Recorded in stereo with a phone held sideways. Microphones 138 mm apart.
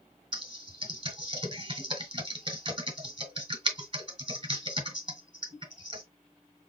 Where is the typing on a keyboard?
35° right (ahead or behind), 1.2 m.